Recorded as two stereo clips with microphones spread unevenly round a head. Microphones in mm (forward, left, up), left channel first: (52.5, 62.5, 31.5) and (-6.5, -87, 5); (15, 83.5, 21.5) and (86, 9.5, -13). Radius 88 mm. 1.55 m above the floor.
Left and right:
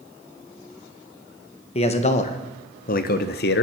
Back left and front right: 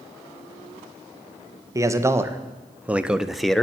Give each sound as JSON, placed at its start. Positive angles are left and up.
{"t": 1.8, "sound": "a man speaking", "azimuth_deg": 15, "distance_m": 1.6}